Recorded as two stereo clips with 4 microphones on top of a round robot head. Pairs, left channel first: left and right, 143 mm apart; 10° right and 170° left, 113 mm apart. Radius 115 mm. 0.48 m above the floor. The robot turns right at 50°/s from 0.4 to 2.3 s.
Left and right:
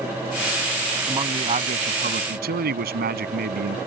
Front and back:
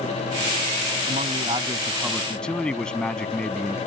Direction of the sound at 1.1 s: 155° right.